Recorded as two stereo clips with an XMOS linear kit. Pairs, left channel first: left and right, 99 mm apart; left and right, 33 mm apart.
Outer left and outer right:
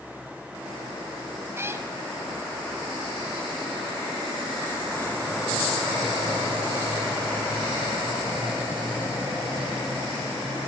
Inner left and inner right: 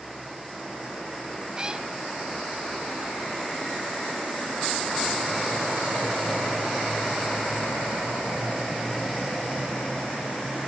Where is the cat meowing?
25° right (ahead or behind), 1.4 m.